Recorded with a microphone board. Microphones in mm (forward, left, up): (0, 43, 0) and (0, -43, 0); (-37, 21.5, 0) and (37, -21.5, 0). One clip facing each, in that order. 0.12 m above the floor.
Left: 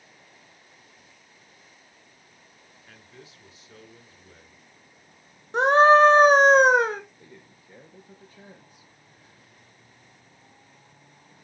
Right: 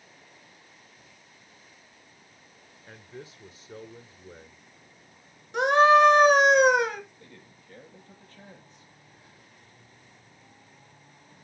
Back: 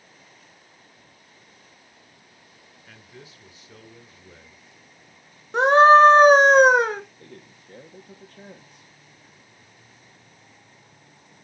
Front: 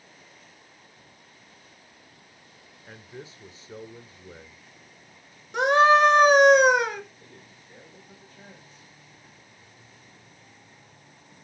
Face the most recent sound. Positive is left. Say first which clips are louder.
# left 1 dB, back 4 dB
turn(degrees=165)